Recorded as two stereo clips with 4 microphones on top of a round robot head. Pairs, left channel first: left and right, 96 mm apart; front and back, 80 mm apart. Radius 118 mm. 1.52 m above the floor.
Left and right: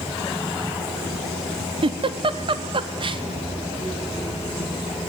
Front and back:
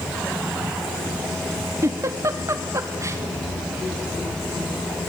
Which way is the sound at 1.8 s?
125° right.